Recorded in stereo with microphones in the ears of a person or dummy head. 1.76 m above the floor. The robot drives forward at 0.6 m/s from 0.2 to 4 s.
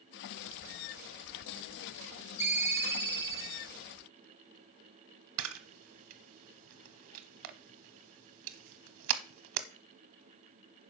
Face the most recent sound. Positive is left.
turn(degrees=-75)  # may be behind; listen again after turning